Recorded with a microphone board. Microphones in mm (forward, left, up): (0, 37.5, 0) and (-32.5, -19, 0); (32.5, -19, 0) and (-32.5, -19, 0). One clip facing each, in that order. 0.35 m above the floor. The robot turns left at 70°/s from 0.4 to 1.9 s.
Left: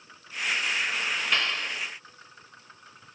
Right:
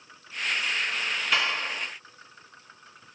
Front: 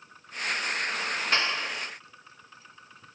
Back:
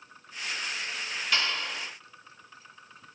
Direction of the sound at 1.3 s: 35° right.